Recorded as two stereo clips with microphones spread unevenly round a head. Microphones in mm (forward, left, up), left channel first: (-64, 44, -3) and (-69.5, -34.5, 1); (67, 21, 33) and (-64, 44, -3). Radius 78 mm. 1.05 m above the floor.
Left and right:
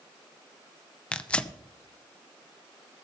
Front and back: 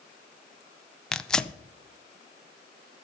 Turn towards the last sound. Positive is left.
turn(degrees=115)